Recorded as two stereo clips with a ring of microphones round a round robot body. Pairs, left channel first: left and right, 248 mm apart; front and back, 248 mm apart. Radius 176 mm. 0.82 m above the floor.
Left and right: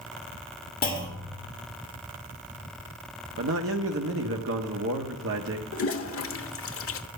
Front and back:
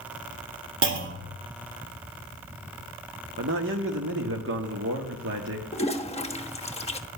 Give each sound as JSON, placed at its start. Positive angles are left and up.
{"t": 0.8, "sound": "a clunk", "azimuth_deg": 150, "distance_m": 2.5}
{"t": 3.4, "sound": "a man speaking", "azimuth_deg": -130, "distance_m": 1.2}
{"t": 5.7, "sound": "a toilet flushing", "azimuth_deg": 65, "distance_m": 1.3}